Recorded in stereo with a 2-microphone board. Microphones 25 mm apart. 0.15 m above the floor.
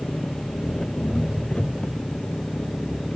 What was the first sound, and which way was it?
An engine running, 40° left (ahead or behind).